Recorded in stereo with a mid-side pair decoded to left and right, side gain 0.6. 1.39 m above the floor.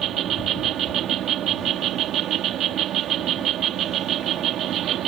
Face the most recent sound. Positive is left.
turn(degrees=-55)